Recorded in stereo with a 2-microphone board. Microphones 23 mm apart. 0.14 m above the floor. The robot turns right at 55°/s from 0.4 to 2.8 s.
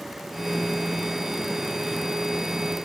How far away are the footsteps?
No footsteps in this recording.